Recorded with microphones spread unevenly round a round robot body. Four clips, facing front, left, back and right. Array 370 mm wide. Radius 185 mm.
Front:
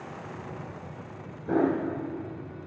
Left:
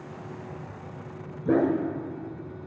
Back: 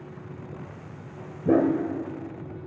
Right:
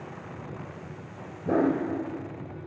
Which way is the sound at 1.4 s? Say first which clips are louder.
Left 1 dB, back 4 dB; 170° left.